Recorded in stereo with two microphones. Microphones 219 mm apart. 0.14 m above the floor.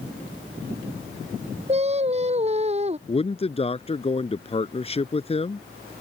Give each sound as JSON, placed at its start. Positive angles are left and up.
{"t": 1.7, "sound": "singing", "side_deg": -30}
{"t": 3.1, "sound": "a man speaking", "side_deg": 30}